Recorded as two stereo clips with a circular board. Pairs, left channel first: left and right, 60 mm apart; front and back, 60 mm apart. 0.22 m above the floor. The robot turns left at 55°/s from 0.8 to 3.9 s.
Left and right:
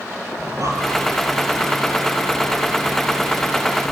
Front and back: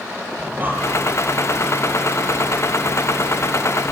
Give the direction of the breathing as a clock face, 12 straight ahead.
4 o'clock.